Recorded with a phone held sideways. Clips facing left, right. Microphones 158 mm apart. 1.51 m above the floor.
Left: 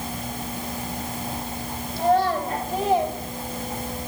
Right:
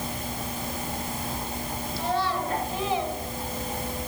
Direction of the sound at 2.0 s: 55° left (ahead or behind).